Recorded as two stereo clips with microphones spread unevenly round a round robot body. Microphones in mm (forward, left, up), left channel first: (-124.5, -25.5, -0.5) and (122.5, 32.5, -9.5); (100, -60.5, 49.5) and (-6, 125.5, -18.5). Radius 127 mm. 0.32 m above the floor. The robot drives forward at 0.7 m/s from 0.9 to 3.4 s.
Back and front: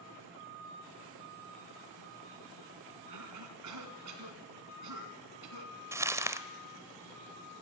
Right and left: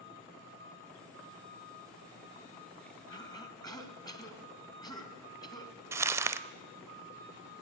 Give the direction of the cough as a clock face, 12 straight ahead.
11 o'clock.